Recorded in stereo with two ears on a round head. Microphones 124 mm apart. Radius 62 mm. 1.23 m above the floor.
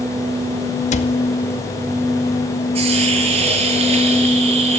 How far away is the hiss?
About 8 m.